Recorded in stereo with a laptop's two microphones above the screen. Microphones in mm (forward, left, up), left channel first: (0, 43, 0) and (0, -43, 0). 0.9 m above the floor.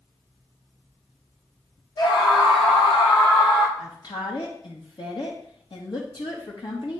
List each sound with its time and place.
2.0 s a scream: 55° left (ahead or behind), 1.2 m; by 3.7 s 75° left (ahead or behind), 2.5 m
3.8 s a woman speaking: 60° left (ahead or behind), 1.1 m